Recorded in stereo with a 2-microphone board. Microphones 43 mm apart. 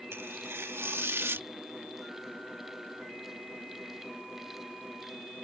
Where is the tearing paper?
75° right (ahead or behind).